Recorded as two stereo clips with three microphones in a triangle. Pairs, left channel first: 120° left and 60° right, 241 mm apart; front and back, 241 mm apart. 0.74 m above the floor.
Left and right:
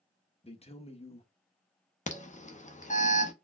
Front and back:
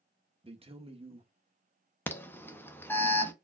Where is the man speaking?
145° left, 0.7 m.